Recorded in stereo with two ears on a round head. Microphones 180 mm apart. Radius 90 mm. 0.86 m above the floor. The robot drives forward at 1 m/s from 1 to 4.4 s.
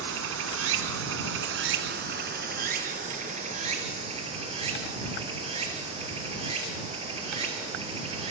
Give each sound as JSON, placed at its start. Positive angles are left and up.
{"t": 0.0, "sound": "running water", "side_deg": -75, "distance_m": 2.0}